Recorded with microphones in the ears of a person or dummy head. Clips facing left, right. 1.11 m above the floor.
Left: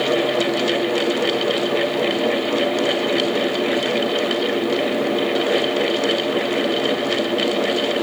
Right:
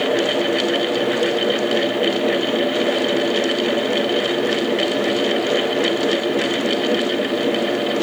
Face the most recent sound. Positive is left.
No sound to turn to.